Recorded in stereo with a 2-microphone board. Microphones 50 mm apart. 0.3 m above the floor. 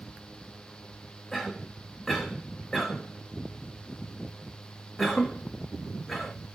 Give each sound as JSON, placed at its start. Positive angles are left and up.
{"t": 1.3, "sound": "a cough", "side_deg": 0, "distance_m": 1.2}